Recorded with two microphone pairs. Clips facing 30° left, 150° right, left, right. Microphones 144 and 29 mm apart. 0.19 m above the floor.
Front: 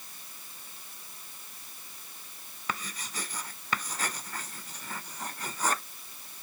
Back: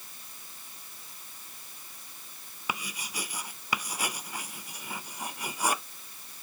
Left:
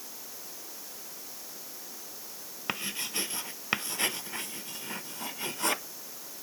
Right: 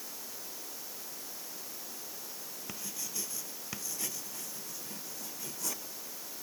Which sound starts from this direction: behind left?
Writing, at 2.7 s.